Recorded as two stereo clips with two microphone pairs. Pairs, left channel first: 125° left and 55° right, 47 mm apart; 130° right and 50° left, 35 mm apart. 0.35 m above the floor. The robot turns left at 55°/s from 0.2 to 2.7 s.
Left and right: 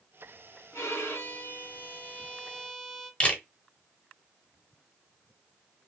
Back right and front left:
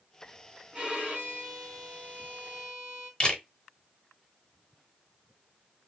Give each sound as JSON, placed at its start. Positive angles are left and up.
{"t": 0.7, "sound": "a violin", "azimuth_deg": 120, "distance_m": 1.2}
{"t": 3.2, "sound": "a camera shutter", "azimuth_deg": 180, "distance_m": 0.9}